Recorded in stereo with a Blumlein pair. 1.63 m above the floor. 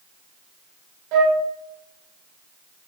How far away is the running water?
No running water in this recording.